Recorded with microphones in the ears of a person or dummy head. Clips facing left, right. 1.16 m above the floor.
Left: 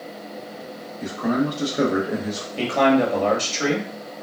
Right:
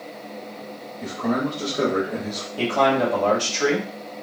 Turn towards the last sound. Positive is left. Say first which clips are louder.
# left 2 dB
turn(degrees=30)  # may be behind; listen again after turning